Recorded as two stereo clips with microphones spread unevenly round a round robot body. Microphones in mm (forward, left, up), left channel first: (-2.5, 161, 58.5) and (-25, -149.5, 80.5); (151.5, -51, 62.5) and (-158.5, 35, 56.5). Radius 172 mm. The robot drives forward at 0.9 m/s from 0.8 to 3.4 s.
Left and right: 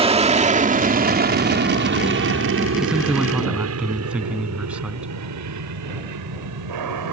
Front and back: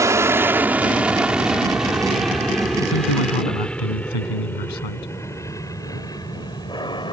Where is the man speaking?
5° right.